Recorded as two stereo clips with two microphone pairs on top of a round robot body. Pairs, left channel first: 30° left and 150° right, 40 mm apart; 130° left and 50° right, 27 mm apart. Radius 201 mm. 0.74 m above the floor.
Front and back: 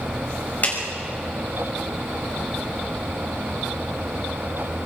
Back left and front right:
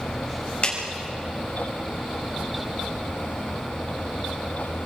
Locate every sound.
0.6 s a clap: 85° left, 5.5 m